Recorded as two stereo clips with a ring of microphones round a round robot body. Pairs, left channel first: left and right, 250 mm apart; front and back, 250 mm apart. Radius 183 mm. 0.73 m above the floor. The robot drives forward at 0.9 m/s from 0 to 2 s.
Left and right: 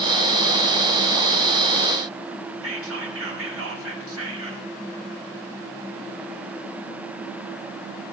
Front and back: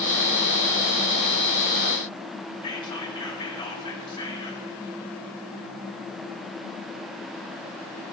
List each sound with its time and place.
2.6 s whispering: 70° right, 2 m